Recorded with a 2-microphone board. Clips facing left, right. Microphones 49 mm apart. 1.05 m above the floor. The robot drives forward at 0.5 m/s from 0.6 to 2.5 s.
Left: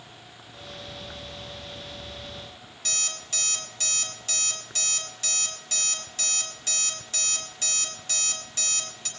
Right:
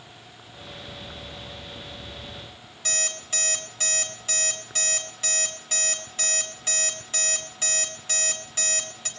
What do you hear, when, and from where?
2.9 s an alarm clock: 25° right (ahead or behind), 5 m